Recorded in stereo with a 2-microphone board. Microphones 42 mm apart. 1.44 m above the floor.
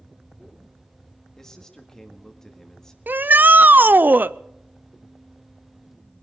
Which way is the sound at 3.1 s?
50° right (ahead or behind).